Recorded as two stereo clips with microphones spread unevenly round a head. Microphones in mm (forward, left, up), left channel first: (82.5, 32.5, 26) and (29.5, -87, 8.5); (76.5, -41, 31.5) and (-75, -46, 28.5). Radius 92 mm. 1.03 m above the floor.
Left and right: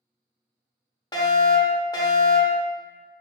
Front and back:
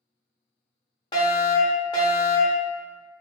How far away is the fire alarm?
About 1.1 m.